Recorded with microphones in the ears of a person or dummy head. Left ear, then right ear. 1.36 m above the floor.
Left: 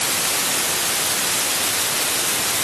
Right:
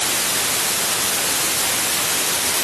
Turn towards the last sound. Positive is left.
No sound to turn to.